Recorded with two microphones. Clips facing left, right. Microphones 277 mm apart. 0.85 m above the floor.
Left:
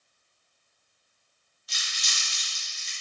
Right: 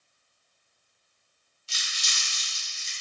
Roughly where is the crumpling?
Right.